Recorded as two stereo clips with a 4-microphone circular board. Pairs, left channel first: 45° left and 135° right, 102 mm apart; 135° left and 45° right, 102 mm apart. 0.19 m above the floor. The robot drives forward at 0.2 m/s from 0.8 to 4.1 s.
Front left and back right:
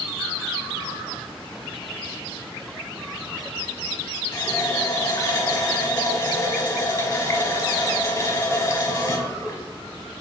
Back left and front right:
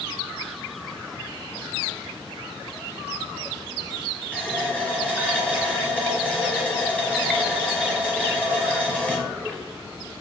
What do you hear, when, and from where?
4.3 s a running tap: 70° left, 1.0 m